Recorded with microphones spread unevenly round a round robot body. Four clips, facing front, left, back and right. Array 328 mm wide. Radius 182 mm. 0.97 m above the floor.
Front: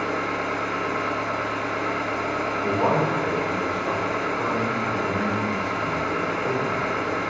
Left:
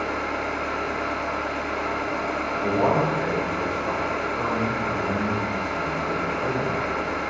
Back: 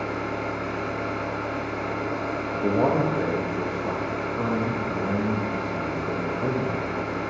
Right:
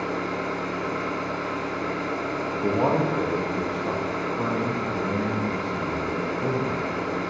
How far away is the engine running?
About 1.8 m.